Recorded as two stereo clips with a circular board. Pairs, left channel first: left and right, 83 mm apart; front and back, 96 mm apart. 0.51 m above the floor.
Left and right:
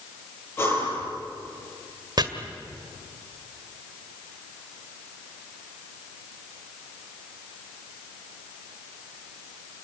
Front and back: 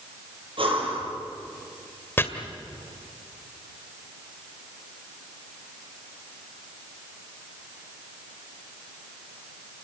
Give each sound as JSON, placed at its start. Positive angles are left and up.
{"t": 0.6, "sound": "breathing", "azimuth_deg": 150, "distance_m": 7.5}
{"t": 2.2, "sound": "chopping", "azimuth_deg": -65, "distance_m": 2.0}